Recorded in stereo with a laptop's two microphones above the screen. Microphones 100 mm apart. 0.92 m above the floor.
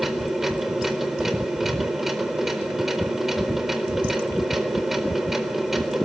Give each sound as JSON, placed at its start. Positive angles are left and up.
{"t": 0.0, "sound": "a machine running", "side_deg": -5, "distance_m": 4.0}